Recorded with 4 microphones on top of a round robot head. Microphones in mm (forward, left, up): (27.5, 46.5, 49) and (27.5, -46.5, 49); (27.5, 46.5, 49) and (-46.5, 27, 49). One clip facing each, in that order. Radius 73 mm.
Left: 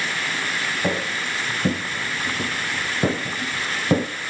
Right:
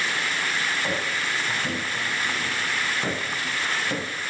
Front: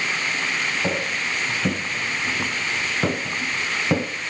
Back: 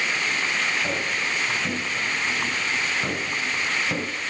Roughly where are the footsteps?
Left.